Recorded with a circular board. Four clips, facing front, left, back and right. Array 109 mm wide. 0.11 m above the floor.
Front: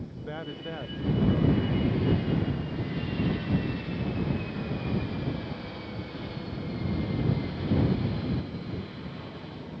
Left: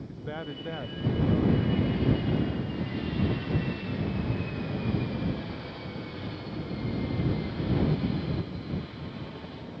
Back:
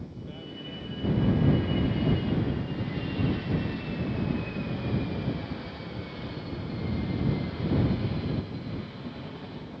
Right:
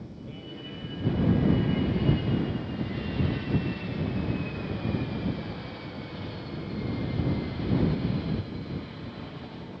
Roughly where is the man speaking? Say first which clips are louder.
Left 4 dB, front 4 dB; ahead left.